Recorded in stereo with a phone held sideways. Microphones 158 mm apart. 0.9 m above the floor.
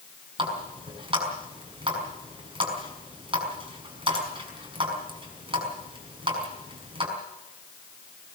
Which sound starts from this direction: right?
A running tap, at 0.4 s.